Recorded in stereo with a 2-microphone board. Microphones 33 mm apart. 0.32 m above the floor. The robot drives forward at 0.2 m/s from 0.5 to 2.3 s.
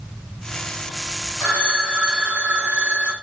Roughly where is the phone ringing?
Right.